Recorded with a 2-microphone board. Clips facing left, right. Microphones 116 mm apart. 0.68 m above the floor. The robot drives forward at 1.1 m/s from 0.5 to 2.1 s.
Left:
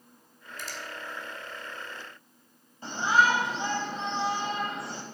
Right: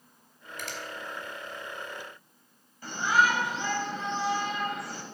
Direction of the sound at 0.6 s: 75° right (ahead or behind).